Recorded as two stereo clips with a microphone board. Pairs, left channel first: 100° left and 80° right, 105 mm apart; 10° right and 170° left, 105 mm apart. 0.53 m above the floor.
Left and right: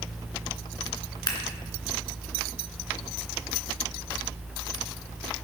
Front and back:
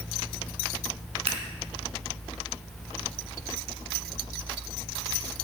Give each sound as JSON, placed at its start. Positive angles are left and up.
{"t": 1.3, "sound": "scissors", "azimuth_deg": 150, "distance_m": 3.0}